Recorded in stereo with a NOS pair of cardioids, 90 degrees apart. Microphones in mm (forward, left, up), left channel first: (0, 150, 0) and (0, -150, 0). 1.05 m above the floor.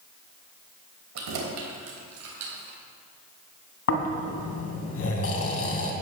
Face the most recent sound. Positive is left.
turn(degrees=55)